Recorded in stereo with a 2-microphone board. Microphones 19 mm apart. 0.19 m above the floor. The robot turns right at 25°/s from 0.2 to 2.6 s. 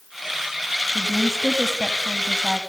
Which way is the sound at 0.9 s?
110° left.